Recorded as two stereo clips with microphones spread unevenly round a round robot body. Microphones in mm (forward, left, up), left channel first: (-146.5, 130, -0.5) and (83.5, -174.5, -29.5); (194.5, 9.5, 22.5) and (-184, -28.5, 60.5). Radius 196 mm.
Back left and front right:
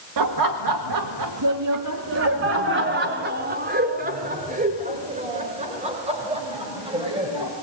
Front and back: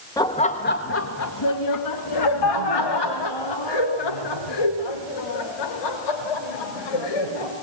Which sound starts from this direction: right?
Laughter, at 0.2 s.